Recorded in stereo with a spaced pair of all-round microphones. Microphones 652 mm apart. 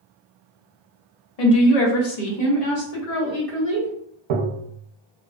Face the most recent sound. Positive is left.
turn(degrees=-70)  # may be behind; listen again after turning